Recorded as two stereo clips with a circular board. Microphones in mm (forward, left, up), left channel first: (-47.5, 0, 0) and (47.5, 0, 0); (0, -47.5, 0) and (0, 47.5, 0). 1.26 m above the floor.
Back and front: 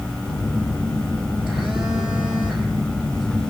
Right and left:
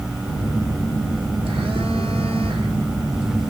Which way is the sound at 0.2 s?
80° left.